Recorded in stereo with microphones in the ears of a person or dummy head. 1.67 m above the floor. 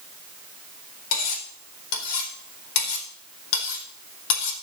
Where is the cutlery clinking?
80° left, 4 m.